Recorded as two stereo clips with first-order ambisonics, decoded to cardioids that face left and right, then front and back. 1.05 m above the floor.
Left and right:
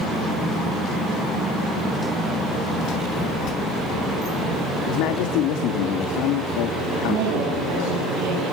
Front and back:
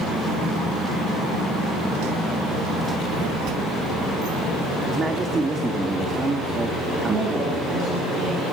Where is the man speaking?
105° left, 2.5 m.